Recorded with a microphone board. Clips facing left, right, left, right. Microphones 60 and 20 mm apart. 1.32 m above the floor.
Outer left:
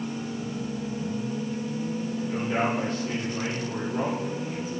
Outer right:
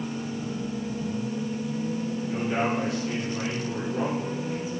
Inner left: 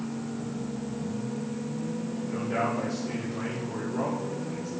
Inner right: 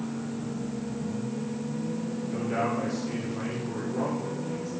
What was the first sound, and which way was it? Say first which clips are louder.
A man speaking: even, even; 15° right (ahead or behind).